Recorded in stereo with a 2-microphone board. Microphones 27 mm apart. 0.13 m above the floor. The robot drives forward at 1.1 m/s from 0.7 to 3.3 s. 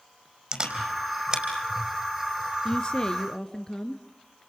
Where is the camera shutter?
30° right (ahead or behind), 4.5 m; by 1.4 s 25° right (ahead or behind), 5 m.